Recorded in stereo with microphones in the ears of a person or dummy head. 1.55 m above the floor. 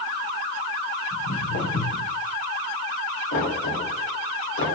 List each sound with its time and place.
1.1 s footsteps: 60° left (ahead or behind), 3.5 m; by 2.1 s 65° left (ahead or behind), 3.5 m
3.3 s knocking: 75° left (ahead or behind), 3 m